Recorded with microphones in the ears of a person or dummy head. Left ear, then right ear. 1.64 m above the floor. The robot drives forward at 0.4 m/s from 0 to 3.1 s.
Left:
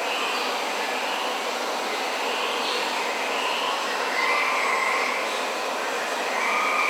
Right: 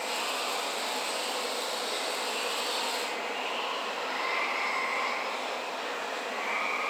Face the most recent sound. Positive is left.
turn(degrees=70)  # may be behind; listen again after turning